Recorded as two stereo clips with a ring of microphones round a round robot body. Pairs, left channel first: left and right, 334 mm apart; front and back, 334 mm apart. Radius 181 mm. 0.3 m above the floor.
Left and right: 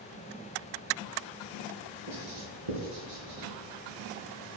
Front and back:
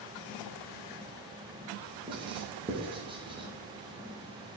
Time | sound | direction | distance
2.1 | writing | 105° right | 3 m